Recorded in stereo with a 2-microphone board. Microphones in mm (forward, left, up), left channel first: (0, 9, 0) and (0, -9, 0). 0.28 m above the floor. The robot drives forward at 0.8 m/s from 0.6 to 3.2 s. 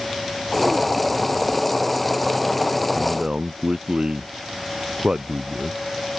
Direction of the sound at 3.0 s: 50° right (ahead or behind).